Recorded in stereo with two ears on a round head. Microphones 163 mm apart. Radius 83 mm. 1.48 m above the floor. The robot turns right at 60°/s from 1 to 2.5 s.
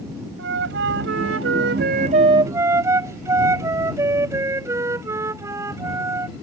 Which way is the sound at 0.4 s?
105° right.